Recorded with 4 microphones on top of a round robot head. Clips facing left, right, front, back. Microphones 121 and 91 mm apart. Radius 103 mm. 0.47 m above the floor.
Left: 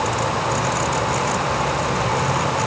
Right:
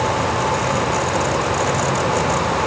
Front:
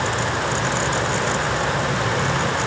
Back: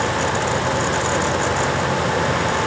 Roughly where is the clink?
No clink in this recording.